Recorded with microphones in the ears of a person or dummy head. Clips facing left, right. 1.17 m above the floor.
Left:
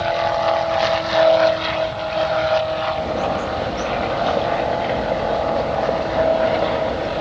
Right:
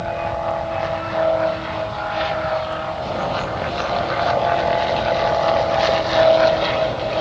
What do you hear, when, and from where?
3.0 s a bird: 15° left (ahead or behind), 0.6 m